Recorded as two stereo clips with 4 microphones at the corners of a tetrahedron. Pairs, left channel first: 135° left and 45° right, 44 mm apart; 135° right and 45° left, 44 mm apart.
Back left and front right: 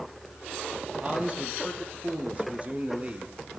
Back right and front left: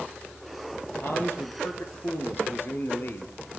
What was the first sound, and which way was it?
A man speaking, 105° right.